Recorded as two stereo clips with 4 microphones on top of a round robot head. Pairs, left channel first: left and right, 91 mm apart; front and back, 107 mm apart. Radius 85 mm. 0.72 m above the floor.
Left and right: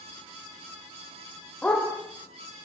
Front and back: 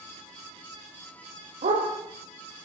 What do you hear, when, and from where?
1.6 s a dog barking: 170° left, 8.5 m